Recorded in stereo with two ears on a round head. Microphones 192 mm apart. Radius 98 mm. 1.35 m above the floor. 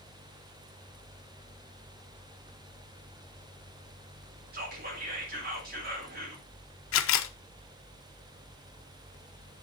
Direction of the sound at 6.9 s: 60° left (ahead or behind).